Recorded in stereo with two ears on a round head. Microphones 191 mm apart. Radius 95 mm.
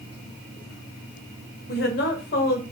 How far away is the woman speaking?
About 0.9 m.